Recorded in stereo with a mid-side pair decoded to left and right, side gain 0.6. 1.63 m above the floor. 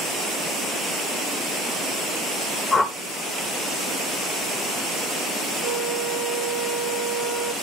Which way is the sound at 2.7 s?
30° left.